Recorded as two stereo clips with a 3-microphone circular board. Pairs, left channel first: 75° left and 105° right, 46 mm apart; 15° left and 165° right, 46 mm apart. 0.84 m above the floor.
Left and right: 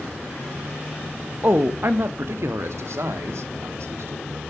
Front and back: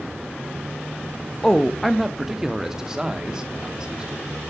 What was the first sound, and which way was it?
A man speaking, 65° right.